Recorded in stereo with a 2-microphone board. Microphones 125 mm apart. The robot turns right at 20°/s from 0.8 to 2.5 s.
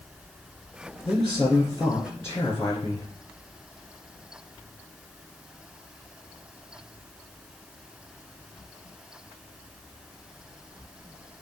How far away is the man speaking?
About 2.0 m.